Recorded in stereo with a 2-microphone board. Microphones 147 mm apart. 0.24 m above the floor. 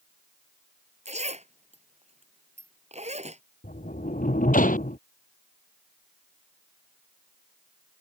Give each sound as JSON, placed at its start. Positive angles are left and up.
{"t": 1.1, "sound": "a zipper", "side_deg": -50}
{"t": 3.6, "sound": "a sliding door", "side_deg": 75}